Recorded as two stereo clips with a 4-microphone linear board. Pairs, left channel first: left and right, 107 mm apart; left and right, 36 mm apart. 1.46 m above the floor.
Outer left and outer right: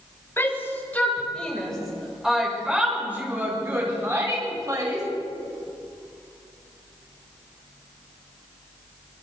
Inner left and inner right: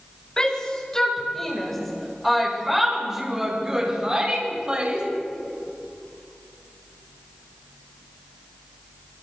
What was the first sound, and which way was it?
A shout, 20° left (ahead or behind).